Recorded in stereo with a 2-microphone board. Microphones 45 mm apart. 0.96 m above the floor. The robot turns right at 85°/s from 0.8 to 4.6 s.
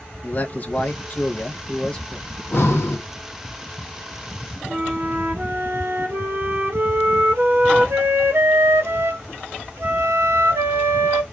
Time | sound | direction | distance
0.2 | a man speaking | 50° left | 1.0 m
2.3 | breathing | 35° left | 1.2 m
4.7 | a flute | 65° right (ahead or behind) | 1.1 m